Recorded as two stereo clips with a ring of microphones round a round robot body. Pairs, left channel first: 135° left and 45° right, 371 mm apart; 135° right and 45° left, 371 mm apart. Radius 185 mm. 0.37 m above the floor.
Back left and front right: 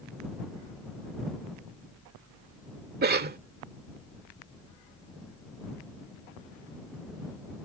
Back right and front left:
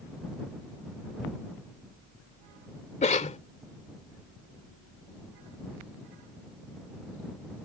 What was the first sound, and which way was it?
A cough, 80° right.